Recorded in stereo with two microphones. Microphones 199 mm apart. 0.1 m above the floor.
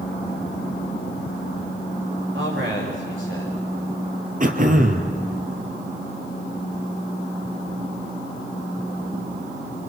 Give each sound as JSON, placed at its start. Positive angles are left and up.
{"t": 2.3, "sound": "a man speaking", "side_deg": -75, "distance_m": 9.0}
{"t": 4.4, "sound": "throat clearing", "side_deg": -40, "distance_m": 2.5}